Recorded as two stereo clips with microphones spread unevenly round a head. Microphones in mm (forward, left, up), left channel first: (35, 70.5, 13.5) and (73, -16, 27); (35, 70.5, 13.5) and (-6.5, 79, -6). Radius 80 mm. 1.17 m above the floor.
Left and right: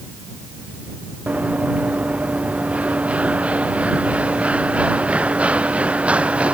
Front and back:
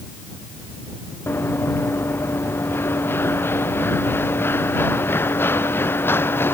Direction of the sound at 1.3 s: 10° left.